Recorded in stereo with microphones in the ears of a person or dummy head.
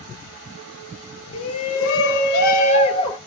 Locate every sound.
1.3 s a shout: 85° left, 1.6 m; by 3.2 s 25° left (ahead or behind), 1.5 m